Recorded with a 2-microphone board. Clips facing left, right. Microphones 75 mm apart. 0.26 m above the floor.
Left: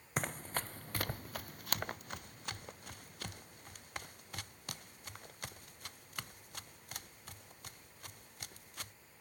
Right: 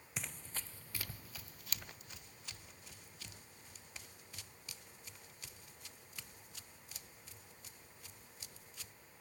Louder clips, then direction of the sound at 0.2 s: Left 10 dB; 50° left (ahead or behind).